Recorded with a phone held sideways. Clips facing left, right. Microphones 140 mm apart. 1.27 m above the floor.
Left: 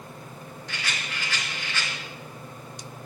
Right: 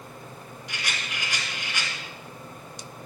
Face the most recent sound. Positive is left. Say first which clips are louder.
# even
turn(degrees=-15)  # may be behind; listen again after turning